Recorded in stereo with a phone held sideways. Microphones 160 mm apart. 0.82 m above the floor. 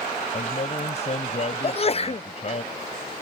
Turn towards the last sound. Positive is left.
turn(degrees=40)  # may be behind; listen again after turning